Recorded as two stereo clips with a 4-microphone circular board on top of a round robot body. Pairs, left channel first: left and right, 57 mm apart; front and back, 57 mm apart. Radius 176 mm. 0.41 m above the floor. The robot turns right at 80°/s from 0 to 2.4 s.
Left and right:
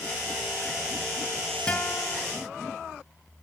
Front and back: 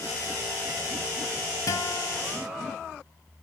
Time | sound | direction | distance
1.7 | a guitar | 20° left | 3 m